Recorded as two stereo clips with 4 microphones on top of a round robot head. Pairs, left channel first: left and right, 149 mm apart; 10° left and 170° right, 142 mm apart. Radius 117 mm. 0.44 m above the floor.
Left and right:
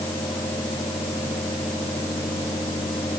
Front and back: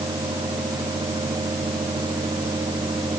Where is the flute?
I don't hear a flute.